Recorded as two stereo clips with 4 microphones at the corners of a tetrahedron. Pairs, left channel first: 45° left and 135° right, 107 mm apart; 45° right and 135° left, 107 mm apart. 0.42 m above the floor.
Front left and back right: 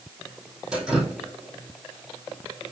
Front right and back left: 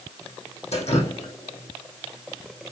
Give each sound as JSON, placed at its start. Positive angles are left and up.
{"t": 0.7, "sound": "dripping", "azimuth_deg": -50, "distance_m": 3.0}